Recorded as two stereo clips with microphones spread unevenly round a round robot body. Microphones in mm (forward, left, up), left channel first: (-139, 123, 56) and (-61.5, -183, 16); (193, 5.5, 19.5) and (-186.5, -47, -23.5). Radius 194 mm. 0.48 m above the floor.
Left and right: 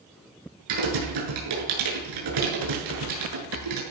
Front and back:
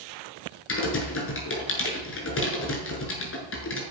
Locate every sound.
0.7 s typing on a keyboard: 50° right, 7 m